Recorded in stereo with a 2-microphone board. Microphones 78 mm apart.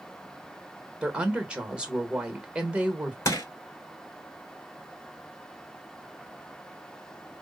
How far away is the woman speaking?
About 1.1 m.